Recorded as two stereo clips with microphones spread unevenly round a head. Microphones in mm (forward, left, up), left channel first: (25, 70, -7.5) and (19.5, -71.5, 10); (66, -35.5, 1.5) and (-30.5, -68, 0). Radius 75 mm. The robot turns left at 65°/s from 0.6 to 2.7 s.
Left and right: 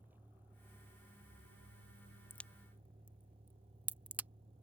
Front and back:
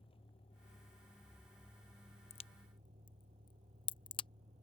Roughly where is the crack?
Ahead.